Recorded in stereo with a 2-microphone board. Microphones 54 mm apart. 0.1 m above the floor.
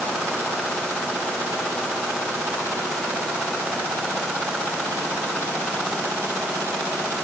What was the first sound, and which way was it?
Only background noise.